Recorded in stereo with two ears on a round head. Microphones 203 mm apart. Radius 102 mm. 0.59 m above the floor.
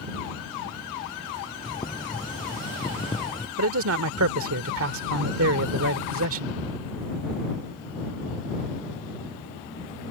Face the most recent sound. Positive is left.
turn(degrees=-60)  # may be behind; listen again after turning